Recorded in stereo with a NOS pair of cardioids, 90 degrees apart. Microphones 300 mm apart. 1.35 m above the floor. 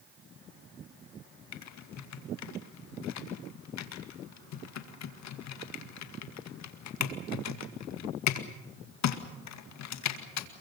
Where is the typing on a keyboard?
65° left, 2 m.